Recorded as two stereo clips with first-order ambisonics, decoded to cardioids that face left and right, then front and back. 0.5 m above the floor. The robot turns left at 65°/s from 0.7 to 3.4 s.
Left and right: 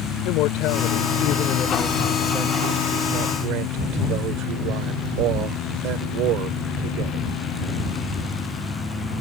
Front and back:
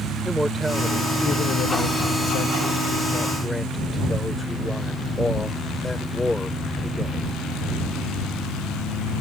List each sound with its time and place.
0.2 s a man speaking: 95° left; by 7.3 s 80° right